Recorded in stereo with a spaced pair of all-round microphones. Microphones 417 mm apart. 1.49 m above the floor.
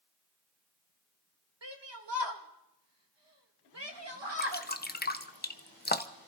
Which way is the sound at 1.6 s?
80° right.